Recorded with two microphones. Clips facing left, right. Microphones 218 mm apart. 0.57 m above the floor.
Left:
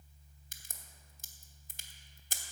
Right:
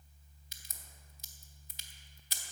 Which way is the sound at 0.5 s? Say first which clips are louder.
Left 2 dB; 50° left (ahead or behind).